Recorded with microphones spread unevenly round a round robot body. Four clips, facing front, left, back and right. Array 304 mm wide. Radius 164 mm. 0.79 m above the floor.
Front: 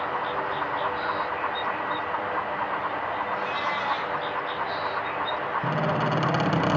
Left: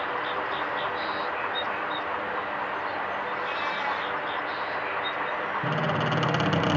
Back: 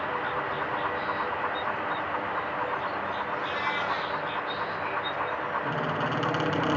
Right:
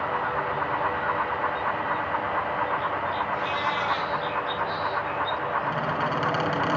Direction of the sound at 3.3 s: 115° right.